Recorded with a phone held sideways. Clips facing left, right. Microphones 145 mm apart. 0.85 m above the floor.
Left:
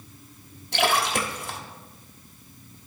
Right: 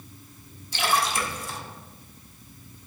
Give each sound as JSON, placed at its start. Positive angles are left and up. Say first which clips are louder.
{"t": 0.7, "sound": "a splash", "louder": "left 2 dB", "side_deg": 65, "distance_m": 0.8}